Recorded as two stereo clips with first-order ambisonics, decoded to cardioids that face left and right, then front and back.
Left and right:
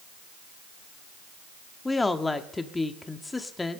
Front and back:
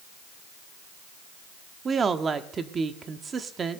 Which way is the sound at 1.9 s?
155° left.